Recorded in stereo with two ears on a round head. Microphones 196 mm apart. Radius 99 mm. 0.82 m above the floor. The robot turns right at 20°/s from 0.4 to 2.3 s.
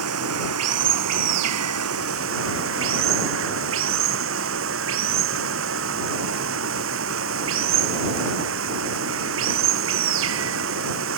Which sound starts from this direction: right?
Running water, at 0.0 s.